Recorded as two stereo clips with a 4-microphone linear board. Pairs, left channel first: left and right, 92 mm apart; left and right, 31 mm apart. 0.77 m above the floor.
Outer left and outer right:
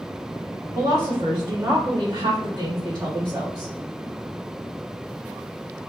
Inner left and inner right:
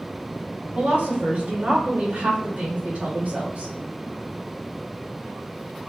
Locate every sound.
0.8 s a woman speaking: 40° right (ahead or behind), 1.7 m; by 3.7 s 50° right (ahead or behind), 1.8 m